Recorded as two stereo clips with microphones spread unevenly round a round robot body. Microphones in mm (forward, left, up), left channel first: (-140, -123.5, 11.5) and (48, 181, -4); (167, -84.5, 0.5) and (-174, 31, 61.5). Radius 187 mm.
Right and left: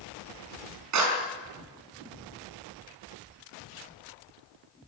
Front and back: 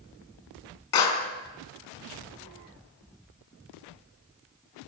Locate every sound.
0.9 s a clap: 10° left, 5 m